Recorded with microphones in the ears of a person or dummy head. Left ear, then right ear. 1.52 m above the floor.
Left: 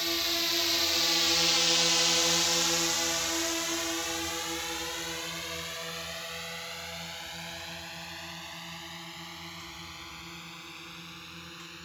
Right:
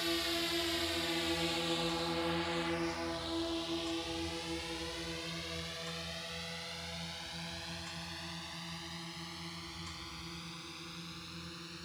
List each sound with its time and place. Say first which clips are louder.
0.0 s a drone: left 6 dB; 15° left (ahead or behind); by 11.9 s 30° left (ahead or behind)